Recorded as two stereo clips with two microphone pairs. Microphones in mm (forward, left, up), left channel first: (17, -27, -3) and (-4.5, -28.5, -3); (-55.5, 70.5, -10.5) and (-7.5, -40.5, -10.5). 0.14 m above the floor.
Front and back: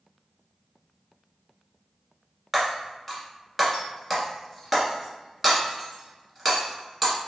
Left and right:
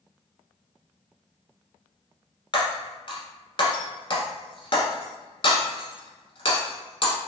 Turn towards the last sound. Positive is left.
turn(degrees=100)